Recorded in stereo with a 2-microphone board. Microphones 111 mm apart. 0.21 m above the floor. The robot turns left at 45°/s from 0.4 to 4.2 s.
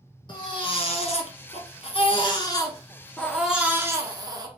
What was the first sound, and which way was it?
A baby crying, 130° left.